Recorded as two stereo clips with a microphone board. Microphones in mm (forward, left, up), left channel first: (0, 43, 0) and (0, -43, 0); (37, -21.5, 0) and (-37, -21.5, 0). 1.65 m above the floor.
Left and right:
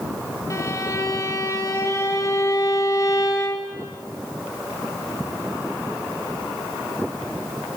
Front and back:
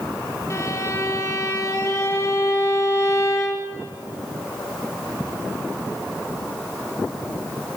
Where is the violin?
45° left, 2.5 m.